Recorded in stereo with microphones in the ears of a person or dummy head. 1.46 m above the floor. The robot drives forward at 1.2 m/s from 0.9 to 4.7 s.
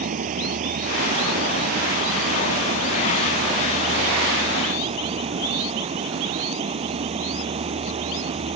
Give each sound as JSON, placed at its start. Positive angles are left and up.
{"t": 0.0, "sound": "running water", "side_deg": -40}